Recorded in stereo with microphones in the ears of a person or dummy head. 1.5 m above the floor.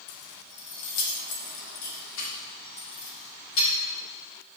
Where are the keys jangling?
55° left (ahead or behind), 1.0 m; by 3.7 s 80° left, 4 m.